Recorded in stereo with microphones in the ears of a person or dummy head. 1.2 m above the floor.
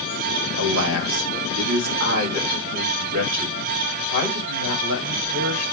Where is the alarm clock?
No alarm clock in this recording.